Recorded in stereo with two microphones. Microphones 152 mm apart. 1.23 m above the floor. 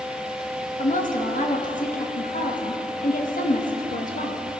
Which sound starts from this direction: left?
A woman speaking, at 0.8 s.